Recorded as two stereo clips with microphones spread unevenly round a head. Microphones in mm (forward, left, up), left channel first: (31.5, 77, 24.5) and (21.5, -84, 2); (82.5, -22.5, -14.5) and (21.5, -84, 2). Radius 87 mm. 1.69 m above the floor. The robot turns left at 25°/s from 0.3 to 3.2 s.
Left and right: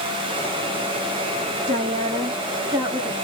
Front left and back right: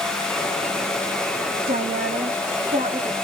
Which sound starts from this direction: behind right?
A woman speaking, at 1.7 s.